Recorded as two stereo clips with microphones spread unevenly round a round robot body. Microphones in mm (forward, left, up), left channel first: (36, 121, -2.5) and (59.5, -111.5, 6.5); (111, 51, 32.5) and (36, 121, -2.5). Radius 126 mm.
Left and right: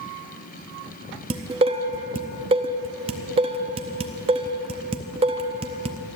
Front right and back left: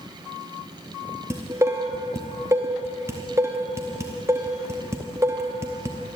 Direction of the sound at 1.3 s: 155° right.